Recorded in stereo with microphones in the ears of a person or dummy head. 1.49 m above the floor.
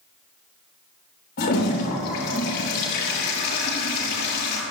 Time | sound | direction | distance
1.4 | a toilet flushing | 50° left (ahead or behind) | 3 m